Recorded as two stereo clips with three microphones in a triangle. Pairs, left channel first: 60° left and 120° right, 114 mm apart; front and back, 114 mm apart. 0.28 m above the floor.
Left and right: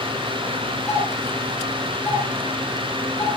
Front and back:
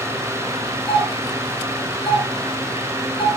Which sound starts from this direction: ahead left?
A doorbell, at 0.9 s.